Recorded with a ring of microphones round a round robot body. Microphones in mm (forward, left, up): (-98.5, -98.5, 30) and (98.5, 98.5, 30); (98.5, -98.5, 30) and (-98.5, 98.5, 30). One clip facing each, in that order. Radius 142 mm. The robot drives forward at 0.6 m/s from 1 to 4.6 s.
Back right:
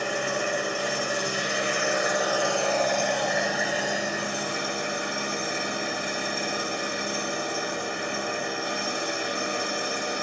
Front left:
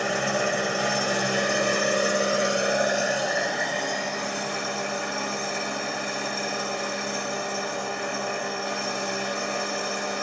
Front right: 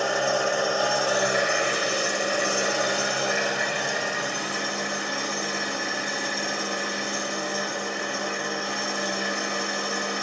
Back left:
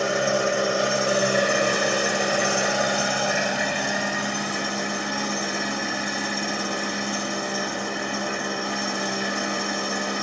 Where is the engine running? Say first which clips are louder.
Front left 2 dB, back left 2 dB; 70° left, 1.2 m; by 10.2 s 150° left, 2 m.